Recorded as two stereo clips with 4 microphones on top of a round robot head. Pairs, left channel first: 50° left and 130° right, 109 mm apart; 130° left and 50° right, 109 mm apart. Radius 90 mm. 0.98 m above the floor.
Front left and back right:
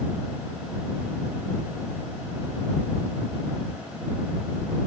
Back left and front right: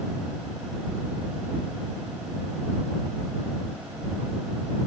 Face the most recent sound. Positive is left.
No sound to turn to.